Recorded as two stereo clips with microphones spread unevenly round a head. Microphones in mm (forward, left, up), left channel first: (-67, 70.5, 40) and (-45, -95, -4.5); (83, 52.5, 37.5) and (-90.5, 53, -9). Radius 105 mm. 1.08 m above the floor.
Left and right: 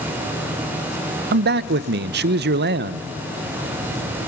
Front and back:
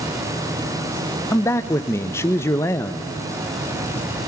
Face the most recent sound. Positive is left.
turn(degrees=-80)